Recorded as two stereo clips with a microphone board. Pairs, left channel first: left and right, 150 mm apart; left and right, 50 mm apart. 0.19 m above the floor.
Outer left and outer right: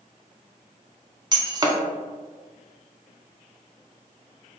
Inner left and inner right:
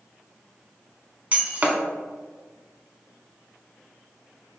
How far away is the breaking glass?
About 0.6 m.